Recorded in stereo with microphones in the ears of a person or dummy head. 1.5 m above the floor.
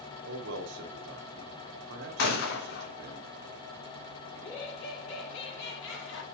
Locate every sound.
0.2 s a man speaking: 65° right (ahead or behind), 2.5 m
2.2 s a gunshot: 60° left (ahead or behind), 2 m
4.3 s laughter: 75° left (ahead or behind), 4 m